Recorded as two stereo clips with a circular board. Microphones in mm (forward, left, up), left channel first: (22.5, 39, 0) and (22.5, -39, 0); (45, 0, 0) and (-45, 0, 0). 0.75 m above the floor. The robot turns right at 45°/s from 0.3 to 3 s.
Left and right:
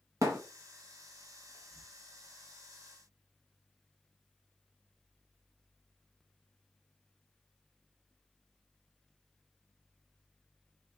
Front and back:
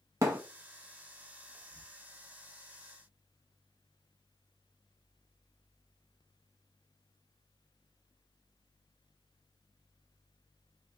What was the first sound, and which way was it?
A thud, 130° right.